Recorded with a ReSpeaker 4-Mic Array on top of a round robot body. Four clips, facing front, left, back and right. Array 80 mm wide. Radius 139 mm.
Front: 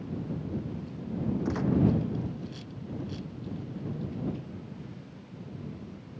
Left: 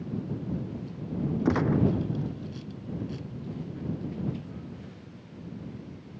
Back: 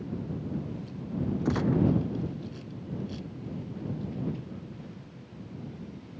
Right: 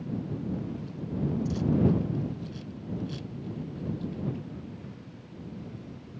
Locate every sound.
1.4 s a gunshot: 95° left